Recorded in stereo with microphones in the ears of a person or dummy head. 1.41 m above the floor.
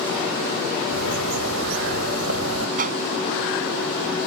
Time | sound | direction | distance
0.9 | a bird | 85° right | ?
2.8 | a whoosh | 40° right (ahead or behind) | ?